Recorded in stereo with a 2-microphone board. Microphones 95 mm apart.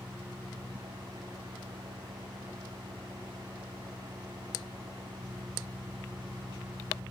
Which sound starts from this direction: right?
An engine running, at 0.0 s.